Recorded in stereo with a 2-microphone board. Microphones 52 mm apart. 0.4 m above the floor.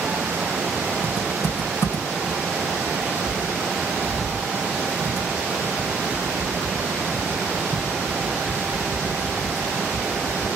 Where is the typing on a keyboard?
75° left (ahead or behind), 2.5 m.